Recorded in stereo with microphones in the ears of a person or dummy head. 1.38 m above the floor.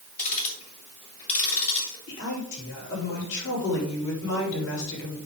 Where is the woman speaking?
60° left (ahead or behind), 4.5 m.